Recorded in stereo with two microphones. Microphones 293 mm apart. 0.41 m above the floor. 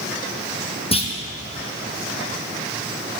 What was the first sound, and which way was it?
A clunk, 20° left (ahead or behind).